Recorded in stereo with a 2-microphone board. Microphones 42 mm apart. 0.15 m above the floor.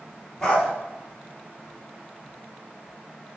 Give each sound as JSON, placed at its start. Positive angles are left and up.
{"t": 0.4, "sound": "a dog barking", "side_deg": 20, "distance_m": 1.1}